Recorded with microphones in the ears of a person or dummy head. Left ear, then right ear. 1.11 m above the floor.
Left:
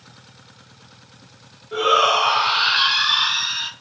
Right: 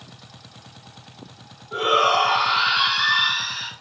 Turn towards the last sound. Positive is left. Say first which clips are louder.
# left 2 dB
turn(degrees=25)  # may be behind; listen again after turning